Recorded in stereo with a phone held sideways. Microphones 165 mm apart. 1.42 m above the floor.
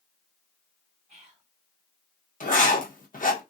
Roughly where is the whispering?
Right.